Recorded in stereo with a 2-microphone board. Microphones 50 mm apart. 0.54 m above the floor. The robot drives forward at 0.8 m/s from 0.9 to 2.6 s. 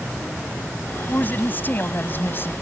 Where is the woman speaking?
35° left (ahead or behind); by 2.5 s 45° left (ahead or behind).